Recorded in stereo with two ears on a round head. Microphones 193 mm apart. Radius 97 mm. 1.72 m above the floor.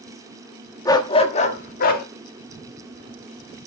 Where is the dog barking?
15° left (ahead or behind), 1.2 m; by 2.1 s 45° left (ahead or behind), 1.6 m.